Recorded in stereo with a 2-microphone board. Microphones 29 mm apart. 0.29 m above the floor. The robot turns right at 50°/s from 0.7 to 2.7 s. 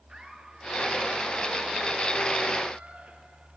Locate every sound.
0.1 s laughter: 150° right, 6.5 m; by 3.6 s 50° right, 6.5 m